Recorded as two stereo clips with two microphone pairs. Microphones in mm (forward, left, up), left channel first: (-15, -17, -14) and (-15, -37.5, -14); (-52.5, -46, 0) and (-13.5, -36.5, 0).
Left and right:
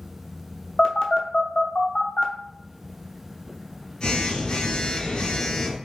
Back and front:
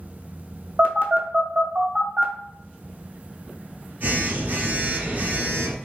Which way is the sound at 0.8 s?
50° left.